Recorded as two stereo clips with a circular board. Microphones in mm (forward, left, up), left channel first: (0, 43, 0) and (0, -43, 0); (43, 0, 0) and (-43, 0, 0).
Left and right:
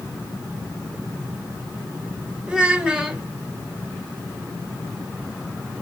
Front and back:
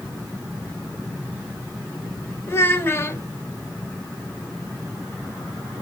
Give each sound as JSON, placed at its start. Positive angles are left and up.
{"t": 2.5, "sound": "a child speaking", "azimuth_deg": -20, "distance_m": 1.3}